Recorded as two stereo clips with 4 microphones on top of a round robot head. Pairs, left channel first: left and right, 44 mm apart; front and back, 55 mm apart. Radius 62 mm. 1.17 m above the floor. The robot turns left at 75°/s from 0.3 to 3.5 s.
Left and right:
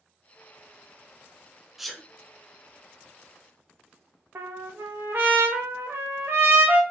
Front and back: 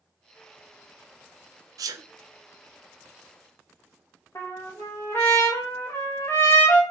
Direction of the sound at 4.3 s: 55° right.